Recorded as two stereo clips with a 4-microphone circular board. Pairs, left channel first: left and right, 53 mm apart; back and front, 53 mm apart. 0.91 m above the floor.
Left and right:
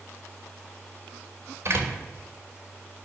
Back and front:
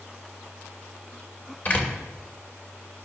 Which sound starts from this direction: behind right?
A door slam, at 1.6 s.